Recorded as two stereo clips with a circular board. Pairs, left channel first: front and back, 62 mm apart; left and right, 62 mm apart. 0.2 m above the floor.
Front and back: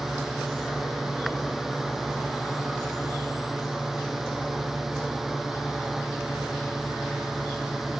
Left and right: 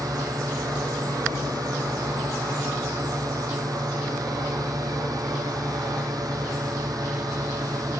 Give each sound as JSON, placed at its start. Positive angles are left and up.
{"t": 0.0, "sound": "a drone", "azimuth_deg": -95}